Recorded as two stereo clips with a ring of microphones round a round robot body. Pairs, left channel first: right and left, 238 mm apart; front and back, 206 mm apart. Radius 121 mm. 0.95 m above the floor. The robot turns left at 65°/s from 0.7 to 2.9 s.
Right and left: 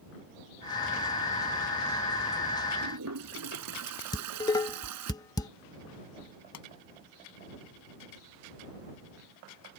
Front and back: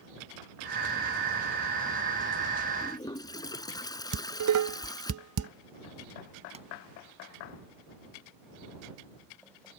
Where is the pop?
115° right.